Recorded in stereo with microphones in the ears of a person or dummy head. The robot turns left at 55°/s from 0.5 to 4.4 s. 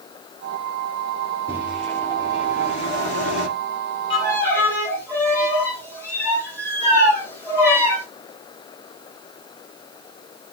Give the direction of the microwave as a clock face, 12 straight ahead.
5 o'clock.